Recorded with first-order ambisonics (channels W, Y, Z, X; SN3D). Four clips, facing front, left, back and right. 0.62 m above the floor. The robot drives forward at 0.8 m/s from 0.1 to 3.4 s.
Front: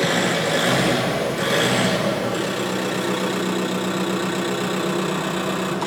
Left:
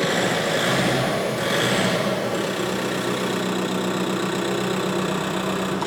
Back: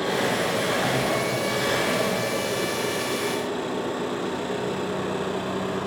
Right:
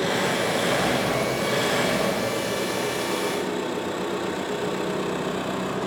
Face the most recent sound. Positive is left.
turn(degrees=35)